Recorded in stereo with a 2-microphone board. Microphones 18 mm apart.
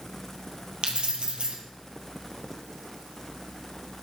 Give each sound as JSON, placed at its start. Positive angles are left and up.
{"t": 0.8, "sound": "keys jangling", "side_deg": -60, "distance_m": 2.5}